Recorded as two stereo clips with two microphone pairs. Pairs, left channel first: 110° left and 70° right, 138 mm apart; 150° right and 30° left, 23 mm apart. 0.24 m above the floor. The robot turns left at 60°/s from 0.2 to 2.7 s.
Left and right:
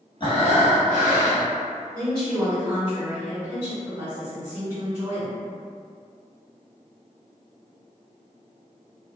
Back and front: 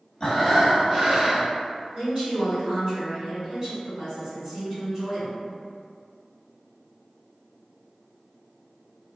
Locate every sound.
0.2 s breathing: 160° left, 1.0 m; by 1.6 s 80° left, 1.0 m
1.9 s a woman speaking: 35° left, 1.9 m; by 5.4 s 10° right, 1.9 m